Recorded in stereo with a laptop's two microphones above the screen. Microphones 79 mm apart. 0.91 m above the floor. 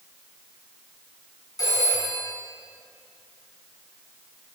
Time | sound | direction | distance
1.6 | a phone ringing | 50° left (ahead or behind) | 5.5 m